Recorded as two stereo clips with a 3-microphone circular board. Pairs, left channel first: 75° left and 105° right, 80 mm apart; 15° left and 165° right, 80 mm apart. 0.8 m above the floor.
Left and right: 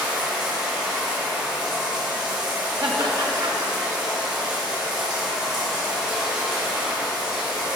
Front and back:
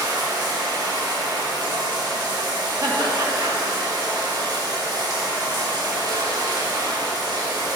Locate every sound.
0.0 s running water: 175° left, 1.8 m
2.8 s laughter: 125° right, 1.3 m